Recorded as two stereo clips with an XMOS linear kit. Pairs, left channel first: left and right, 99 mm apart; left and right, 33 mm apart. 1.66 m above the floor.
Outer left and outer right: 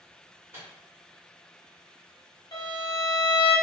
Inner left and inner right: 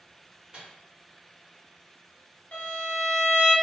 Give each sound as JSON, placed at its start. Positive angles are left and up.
{"t": 0.5, "sound": "a microwave", "side_deg": -25, "distance_m": 1.5}
{"t": 2.5, "sound": "a violin", "side_deg": 45, "distance_m": 0.8}